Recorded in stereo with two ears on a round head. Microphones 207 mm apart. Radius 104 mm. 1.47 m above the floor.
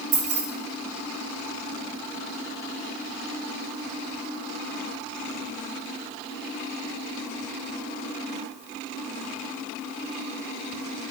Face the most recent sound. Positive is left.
turn(degrees=-45)  # may be behind; listen again after turning